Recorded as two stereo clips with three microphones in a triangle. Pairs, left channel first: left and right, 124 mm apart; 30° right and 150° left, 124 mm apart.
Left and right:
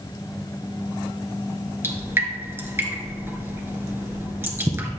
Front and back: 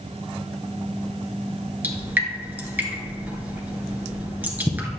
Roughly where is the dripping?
Behind right.